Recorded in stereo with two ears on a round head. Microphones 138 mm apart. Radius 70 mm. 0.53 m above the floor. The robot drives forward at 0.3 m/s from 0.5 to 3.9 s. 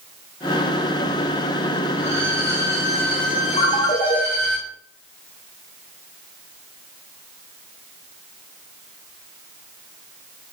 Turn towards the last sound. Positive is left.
turn(degrees=35)  # may be behind; listen again after turning